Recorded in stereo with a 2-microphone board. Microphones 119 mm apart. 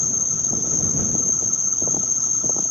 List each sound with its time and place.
0.0 s an insect: 70° right (ahead or behind)